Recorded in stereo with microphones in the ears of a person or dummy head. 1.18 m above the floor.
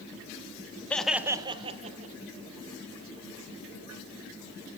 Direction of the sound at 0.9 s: 10° left (ahead or behind).